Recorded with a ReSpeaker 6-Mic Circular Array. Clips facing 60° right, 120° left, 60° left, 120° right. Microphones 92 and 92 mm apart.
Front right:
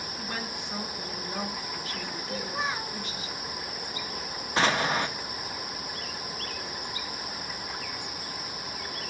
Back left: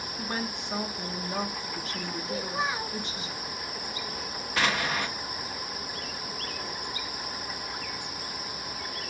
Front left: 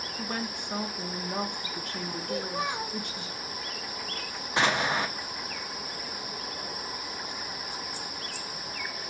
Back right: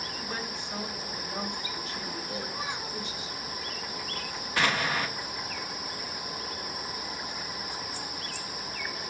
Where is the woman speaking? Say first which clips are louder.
Back left 4 dB, front left 5 dB; 65° left, 1.2 m.